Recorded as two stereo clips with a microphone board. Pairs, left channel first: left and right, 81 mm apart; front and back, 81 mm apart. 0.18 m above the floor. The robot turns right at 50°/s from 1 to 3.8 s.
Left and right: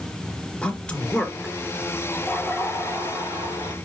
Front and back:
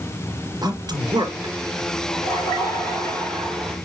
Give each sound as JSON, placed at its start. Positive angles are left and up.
{"t": 0.6, "sound": "a man speaking", "azimuth_deg": 165, "distance_m": 3.0}
{"t": 2.1, "sound": "laughter", "azimuth_deg": 10, "distance_m": 4.5}